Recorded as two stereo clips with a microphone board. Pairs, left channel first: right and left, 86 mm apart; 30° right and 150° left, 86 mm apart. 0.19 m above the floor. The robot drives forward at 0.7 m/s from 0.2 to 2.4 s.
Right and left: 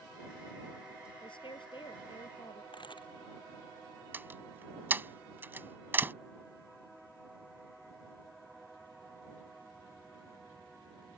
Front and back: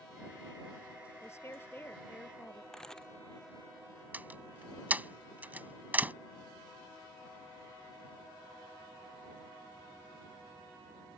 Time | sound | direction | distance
1.2 | a woman speaking | 85° right | ?
2.7 | a camera shutter | 115° right | ?
4.1 | a door slam | 110° left | ?